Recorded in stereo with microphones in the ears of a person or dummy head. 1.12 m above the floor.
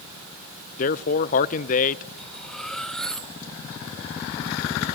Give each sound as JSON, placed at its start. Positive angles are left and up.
{"t": 0.8, "sound": "a man speaking", "side_deg": 35, "distance_m": 0.6}
{"t": 2.2, "sound": "cutlery clinking", "side_deg": 10, "distance_m": 0.8}